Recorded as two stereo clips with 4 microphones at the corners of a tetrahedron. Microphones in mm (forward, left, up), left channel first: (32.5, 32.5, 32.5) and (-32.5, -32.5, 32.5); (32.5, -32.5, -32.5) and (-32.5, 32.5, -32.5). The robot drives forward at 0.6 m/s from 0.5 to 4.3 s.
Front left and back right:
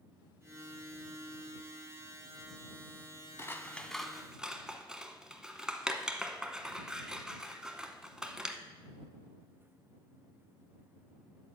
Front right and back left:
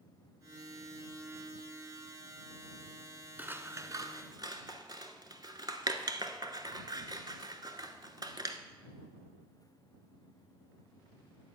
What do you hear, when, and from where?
3.4 s scissors: 80° left, 0.6 m; by 8.6 s 145° left, 0.8 m